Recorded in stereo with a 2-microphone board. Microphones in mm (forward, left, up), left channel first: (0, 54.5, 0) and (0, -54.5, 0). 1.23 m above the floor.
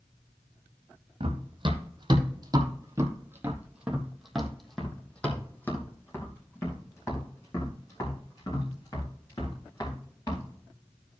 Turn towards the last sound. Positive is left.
turn(degrees=40)  # may be behind; listen again after turning